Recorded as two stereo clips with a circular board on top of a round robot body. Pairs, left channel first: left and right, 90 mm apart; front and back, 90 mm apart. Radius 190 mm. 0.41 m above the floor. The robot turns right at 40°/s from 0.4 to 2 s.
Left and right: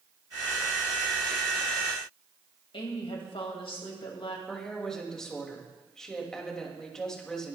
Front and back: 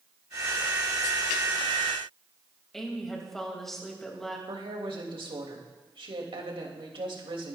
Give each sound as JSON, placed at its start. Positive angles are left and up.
{"t": 2.7, "sound": "a woman speaking", "azimuth_deg": 85, "distance_m": 3.0}
{"t": 4.5, "sound": "a woman speaking", "azimuth_deg": 170, "distance_m": 3.0}